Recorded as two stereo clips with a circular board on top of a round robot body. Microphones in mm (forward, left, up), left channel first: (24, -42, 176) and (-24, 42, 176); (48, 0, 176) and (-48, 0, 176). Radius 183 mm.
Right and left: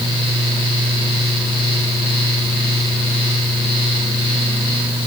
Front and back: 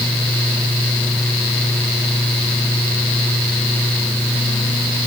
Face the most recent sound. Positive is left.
No sound to turn to.